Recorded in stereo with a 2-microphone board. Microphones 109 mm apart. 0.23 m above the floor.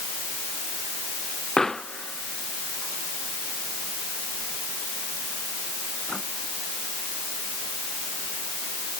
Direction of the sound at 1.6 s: 5° left (ahead or behind).